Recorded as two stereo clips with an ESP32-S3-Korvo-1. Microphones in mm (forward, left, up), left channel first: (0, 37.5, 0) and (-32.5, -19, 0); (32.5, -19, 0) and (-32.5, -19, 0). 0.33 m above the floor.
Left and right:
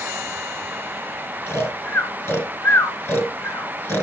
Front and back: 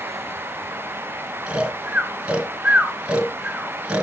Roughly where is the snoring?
Left.